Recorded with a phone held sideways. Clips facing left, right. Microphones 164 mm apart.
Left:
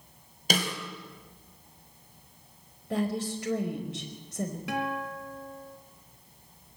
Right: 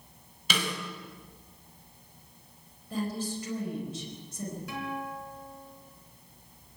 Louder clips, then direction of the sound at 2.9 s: Left 3 dB; 75° left (ahead or behind).